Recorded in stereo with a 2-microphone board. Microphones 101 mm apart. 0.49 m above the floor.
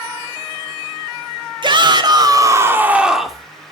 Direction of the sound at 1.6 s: 50° right (ahead or behind).